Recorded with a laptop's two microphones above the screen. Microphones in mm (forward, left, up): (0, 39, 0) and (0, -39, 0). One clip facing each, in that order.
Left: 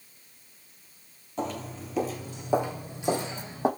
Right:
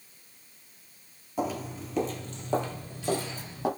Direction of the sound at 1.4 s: 10° right (ahead or behind).